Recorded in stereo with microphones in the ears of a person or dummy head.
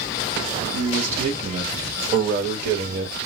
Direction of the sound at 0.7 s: 35° right (ahead or behind).